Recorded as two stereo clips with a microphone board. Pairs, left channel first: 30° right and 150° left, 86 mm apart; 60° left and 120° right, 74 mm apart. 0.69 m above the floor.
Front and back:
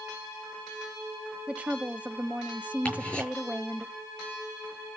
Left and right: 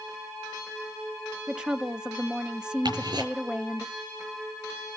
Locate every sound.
1.5 s a woman speaking: 170° right, 1.0 m
2.9 s ticking: 105° right, 7 m